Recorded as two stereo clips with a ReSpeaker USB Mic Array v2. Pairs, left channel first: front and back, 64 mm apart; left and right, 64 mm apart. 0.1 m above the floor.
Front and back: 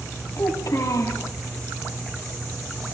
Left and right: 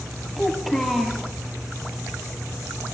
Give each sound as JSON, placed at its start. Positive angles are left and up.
{"t": 0.4, "sound": "a child speaking", "azimuth_deg": 0, "distance_m": 1.5}